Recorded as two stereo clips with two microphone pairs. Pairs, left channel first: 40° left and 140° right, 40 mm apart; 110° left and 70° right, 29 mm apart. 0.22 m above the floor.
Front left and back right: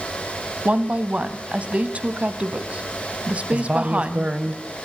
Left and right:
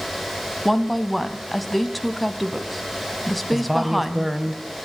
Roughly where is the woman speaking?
Behind.